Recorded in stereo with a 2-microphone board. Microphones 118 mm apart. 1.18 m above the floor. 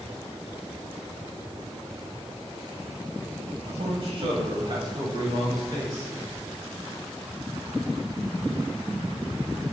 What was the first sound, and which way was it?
A man speaking, 60° right (ahead or behind).